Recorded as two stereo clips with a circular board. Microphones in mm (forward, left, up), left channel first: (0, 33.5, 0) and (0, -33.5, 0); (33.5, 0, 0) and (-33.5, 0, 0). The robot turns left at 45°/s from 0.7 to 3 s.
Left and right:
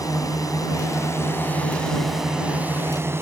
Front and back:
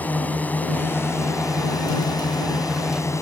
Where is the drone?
65° left; by 3.2 s 40° right.